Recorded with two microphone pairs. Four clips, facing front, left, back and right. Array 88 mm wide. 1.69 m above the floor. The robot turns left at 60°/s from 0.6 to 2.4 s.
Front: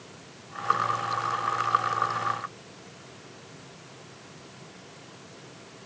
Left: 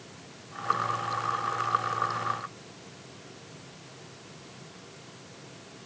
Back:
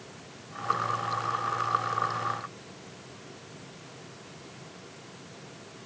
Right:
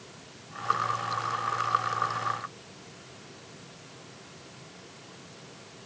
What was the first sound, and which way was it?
Only background noise.